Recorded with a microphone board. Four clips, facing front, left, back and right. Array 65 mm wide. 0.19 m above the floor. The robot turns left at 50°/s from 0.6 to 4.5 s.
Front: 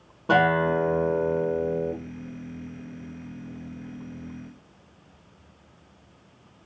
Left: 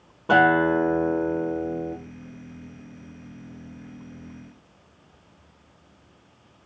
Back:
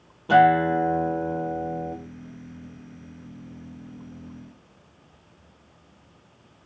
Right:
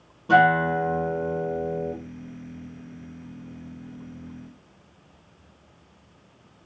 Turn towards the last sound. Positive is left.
turn(degrees=-150)